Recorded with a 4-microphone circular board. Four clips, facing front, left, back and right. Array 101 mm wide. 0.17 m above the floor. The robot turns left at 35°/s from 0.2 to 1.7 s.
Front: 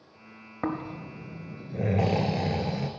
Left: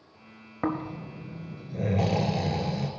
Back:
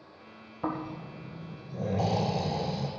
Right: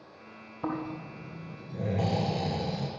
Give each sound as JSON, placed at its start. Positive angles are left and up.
{"t": 0.6, "sound": "snoring", "azimuth_deg": 50, "distance_m": 1.5}